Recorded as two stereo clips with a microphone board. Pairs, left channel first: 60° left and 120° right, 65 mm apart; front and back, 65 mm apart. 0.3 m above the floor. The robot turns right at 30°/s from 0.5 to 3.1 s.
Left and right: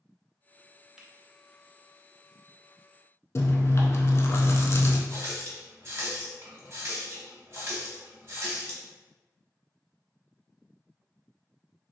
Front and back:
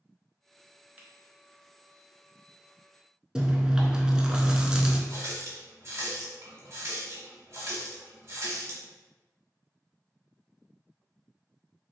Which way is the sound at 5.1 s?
155° right.